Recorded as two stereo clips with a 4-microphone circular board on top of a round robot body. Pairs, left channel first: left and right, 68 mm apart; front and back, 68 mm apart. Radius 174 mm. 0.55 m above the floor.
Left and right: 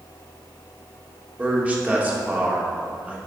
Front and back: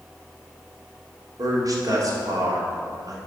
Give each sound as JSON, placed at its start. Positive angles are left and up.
{"t": 1.4, "sound": "a man speaking", "azimuth_deg": -155, "distance_m": 2.5}